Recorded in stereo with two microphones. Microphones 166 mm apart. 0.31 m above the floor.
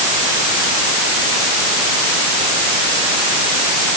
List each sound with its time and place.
Only background noise.